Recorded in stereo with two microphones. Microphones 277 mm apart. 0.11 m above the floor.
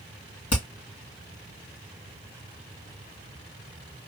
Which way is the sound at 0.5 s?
75° left (ahead or behind).